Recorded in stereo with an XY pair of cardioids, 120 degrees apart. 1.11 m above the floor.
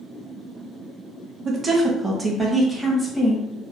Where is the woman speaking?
30° right, 1.0 m; by 3.4 s 10° left, 1.5 m.